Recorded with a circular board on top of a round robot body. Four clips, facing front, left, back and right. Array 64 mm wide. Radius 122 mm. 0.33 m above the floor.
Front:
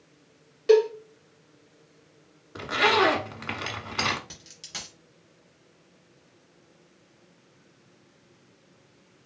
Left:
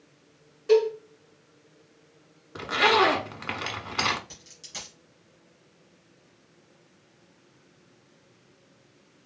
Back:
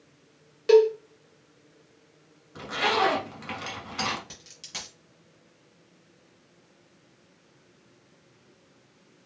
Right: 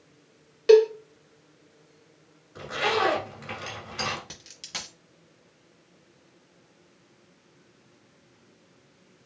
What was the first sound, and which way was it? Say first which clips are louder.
A cowbell: right 5 dB, back 1 dB; 100° right.